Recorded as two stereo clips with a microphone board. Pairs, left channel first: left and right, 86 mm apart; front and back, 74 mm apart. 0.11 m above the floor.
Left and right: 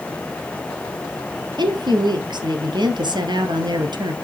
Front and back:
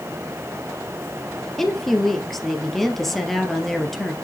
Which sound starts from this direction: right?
A woman speaking, at 1.6 s.